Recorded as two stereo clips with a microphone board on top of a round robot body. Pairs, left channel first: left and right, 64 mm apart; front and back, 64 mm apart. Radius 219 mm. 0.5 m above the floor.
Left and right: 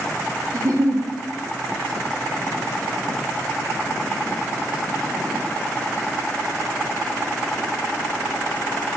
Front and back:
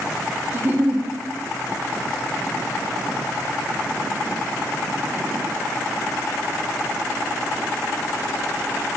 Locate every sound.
0.5 s a giggle: 125° right, 1.0 m